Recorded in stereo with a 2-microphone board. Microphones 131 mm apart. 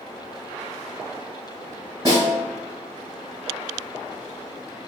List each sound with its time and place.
2.0 s a snare drum: 25° right (ahead or behind), 1.4 m